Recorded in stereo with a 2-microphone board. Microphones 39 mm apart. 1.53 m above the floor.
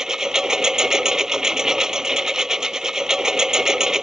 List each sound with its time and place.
0.0 s a lawn mower: 15° right (ahead or behind)